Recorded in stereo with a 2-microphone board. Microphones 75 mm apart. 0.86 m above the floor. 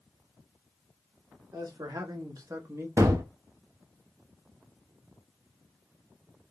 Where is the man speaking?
65° right (ahead or behind), 1.7 m; by 2.9 s 35° right (ahead or behind), 1.0 m.